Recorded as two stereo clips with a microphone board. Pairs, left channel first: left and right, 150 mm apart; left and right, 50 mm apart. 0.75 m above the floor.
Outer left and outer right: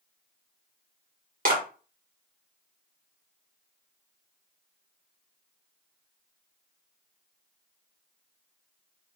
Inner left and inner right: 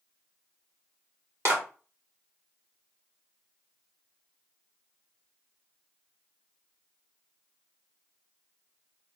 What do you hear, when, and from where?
1.4 s a clap: 60° right (ahead or behind), 2 m